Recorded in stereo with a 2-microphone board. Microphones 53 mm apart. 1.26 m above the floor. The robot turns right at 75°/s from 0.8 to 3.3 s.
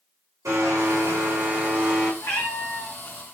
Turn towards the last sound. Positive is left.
turn(degrees=145)